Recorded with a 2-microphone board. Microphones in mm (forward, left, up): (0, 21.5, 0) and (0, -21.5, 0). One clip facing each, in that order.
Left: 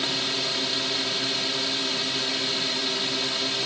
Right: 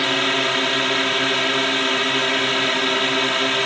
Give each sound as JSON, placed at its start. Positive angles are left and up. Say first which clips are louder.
{"t": 0.0, "sound": "a drone", "louder": "right 9 dB", "side_deg": -50}